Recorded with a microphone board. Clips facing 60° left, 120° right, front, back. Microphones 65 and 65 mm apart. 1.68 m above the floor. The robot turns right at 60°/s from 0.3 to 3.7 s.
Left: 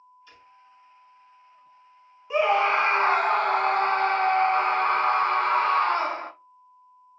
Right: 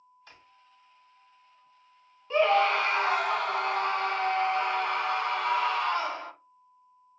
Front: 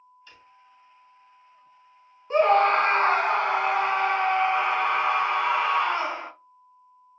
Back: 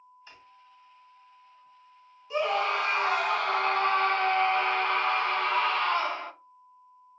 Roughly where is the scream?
Ahead.